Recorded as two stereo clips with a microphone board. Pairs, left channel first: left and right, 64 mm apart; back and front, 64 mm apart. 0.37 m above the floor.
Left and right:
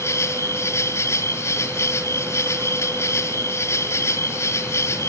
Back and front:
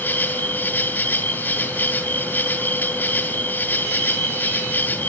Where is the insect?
125° left, 2 m.